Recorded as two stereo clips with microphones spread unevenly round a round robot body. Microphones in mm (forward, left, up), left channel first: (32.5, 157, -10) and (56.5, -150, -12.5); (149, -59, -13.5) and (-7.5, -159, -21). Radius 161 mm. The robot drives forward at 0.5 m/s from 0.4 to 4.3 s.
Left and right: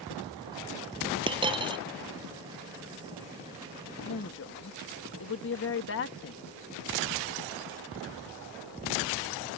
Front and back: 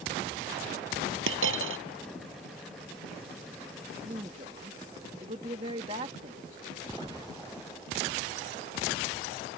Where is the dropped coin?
160° right.